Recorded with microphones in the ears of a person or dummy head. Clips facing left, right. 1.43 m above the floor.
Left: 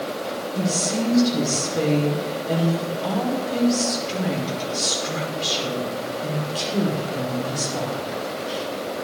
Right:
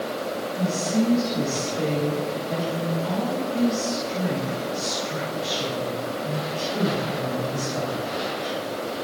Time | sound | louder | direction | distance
0.6 | a woman speaking | right 1 dB | 75° left (ahead or behind) | 5 m